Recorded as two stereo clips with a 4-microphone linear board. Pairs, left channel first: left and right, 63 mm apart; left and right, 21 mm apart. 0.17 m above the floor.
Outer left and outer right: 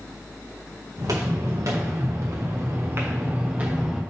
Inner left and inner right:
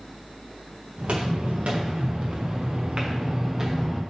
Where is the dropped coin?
No dropped coin in this recording.